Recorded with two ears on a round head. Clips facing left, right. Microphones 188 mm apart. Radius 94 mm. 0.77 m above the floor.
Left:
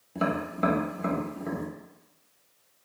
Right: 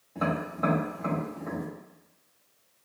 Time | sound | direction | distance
0.1 | tapping | 40° left (ahead or behind) | 0.8 m